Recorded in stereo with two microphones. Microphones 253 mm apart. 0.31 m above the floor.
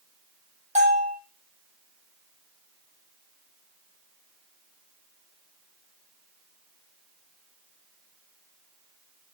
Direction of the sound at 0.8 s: 25° right (ahead or behind).